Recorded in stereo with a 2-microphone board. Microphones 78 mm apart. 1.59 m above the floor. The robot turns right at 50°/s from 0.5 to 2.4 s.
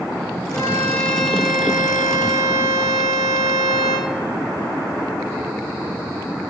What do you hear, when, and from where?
0.5 s a violin: 140° left, 5.5 m; by 4.1 s 125° right, 5.5 m